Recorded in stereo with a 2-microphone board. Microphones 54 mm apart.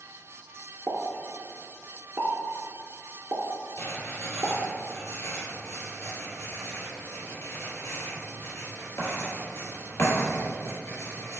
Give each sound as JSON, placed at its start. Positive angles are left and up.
{"t": 0.9, "sound": "a pop", "side_deg": -55, "distance_m": 0.6}
{"t": 3.8, "sound": "writing", "side_deg": 50, "distance_m": 1.9}